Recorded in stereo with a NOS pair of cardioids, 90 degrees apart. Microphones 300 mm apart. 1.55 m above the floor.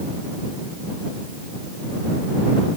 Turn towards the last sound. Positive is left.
No sound to turn to.